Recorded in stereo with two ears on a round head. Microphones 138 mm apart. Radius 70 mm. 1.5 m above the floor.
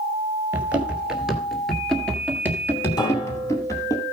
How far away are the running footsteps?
About 1.5 m.